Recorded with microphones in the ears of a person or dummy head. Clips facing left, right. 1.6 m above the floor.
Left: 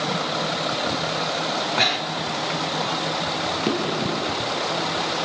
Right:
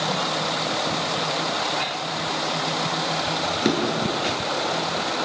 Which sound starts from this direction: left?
Breathing, at 1.8 s.